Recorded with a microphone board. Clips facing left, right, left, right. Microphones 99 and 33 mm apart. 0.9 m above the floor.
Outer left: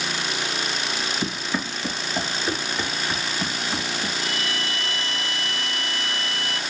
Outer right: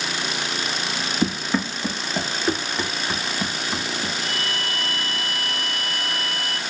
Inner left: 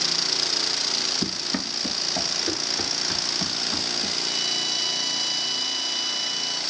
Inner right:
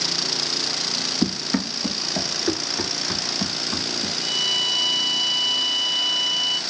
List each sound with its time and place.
1.2 s running footsteps: 45° right (ahead or behind), 2.5 m; by 4.1 s 10° right (ahead or behind), 5.5 m
4.2 s a violin: 55° right (ahead or behind), 1.6 m